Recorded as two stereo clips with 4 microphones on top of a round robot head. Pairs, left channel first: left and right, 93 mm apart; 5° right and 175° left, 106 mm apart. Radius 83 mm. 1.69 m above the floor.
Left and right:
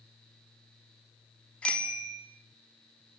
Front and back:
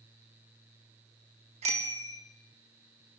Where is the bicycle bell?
165° left, 3 m.